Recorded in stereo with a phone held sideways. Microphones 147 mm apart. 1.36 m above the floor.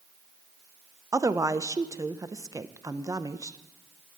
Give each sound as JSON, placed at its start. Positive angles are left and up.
{"t": 1.1, "sound": "a woman speaking", "side_deg": -20, "distance_m": 0.6}